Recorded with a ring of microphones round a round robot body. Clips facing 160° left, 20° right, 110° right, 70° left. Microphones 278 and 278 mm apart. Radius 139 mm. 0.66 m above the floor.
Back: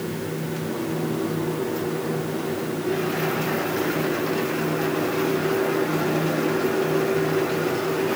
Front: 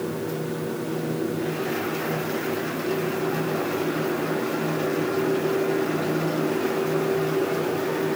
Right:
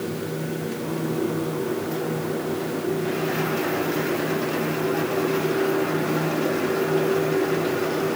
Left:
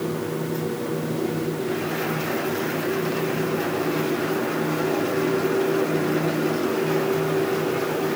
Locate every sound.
Only background noise.